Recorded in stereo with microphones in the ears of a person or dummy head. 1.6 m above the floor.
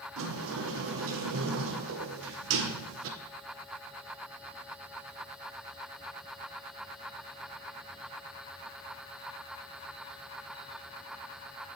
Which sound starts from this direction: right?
A sliding door, at 0.2 s.